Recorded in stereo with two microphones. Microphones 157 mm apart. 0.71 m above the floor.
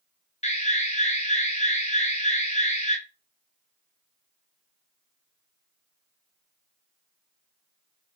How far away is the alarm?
About 0.8 m.